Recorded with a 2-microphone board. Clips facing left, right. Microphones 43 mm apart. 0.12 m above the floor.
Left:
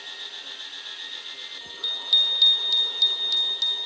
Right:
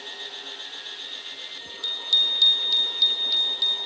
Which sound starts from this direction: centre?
A bicycle bell, at 1.8 s.